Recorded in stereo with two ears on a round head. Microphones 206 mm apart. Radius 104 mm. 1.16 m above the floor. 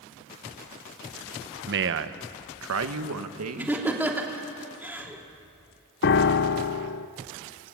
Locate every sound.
1.7 s a man speaking: 50° right (ahead or behind), 1.0 m; by 3.9 s 75° right (ahead or behind), 1.9 m
3.6 s laughter: 10° right (ahead or behind), 3 m
6.0 s a piano: 50° left (ahead or behind), 0.7 m